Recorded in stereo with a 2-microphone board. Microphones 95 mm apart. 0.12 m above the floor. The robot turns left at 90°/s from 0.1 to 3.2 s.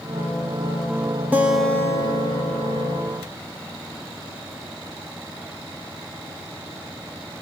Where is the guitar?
160° right, 1.0 m; by 3.0 s 45° left, 1.0 m.